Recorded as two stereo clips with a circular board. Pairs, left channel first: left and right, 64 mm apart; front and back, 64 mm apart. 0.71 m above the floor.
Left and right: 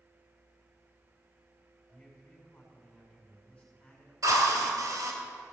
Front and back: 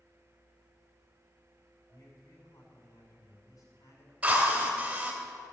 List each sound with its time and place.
1.9 s a man speaking: 20° left, 5 m
4.2 s a drill: 110° right, 2.5 m